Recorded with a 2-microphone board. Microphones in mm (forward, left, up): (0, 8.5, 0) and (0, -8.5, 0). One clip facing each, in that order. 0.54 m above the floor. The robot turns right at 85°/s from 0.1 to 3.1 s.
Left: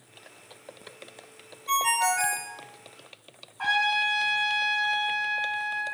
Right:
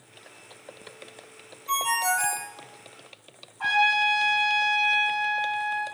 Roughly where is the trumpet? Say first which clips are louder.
Right 3 dB; left.